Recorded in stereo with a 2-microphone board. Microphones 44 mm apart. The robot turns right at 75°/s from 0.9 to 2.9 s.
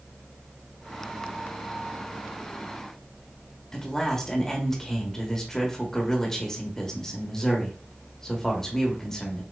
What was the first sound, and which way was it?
A man speaking, 10° left (ahead or behind).